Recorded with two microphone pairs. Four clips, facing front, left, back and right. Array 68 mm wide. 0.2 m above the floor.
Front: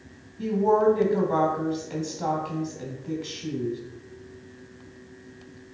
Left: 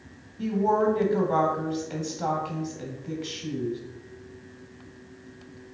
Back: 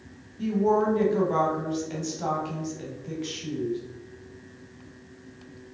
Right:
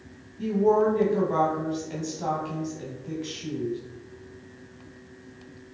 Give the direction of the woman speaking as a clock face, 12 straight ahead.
10 o'clock.